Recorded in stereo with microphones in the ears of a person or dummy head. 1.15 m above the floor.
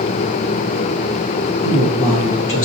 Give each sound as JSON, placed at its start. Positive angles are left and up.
{"t": 1.6, "sound": "a man speaking", "side_deg": 65, "distance_m": 1.4}